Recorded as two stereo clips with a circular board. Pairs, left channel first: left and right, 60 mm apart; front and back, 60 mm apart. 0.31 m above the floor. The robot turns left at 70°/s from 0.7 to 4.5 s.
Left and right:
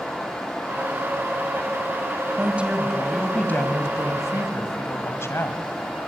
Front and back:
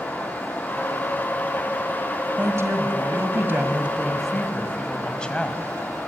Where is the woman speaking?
140° right, 2 m; by 5.6 s 70° left, 2 m.